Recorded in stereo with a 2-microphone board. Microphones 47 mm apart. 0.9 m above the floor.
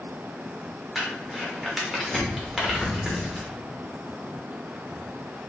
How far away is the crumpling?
About 1.0 m.